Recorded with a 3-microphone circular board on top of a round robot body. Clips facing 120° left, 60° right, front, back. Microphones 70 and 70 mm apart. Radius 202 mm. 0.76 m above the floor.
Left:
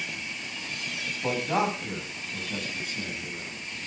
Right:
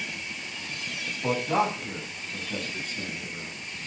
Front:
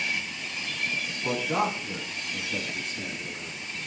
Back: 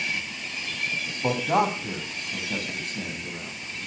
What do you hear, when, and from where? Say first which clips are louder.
1.2 s a man speaking: right 1 dB, back 4 dB; 155° right, 7.5 m; by 3.5 s 150° right, 9 m